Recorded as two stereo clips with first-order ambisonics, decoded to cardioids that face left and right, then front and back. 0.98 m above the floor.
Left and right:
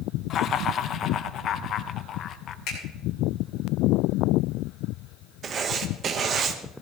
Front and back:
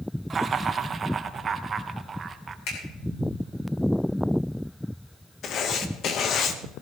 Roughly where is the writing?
Ahead right.